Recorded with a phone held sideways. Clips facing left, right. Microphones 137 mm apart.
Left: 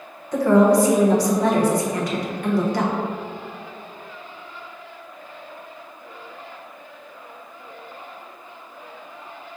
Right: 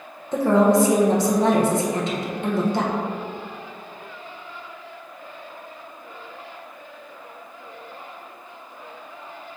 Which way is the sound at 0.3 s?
25° right (ahead or behind).